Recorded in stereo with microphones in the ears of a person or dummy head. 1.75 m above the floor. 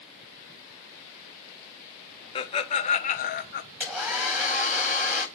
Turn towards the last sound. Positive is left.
turn(degrees=-5)  # may be behind; listen again after turning